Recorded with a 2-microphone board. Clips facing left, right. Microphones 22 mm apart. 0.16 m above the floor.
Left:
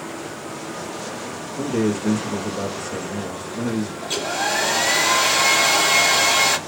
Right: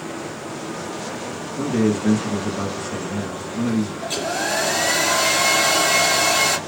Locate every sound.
1.6 s a man speaking: 10° right (ahead or behind), 1.6 m
4.0 s a hair dryer: 20° left (ahead or behind), 1.6 m